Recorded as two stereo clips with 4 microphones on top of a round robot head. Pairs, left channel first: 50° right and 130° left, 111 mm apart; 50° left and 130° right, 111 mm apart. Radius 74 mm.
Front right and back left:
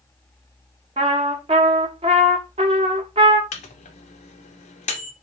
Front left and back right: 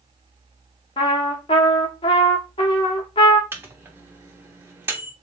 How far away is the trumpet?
About 0.8 m.